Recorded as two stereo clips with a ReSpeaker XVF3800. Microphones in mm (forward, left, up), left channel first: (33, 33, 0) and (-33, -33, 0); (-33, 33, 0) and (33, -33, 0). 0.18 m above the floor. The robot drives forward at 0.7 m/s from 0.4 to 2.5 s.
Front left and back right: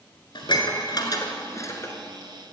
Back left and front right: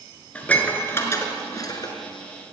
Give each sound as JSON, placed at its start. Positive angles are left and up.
{"t": 0.3, "sound": "dishes clattering", "azimuth_deg": 60, "distance_m": 1.8}